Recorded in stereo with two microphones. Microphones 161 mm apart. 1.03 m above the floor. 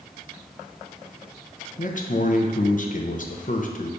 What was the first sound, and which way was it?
A man speaking, 55° left (ahead or behind).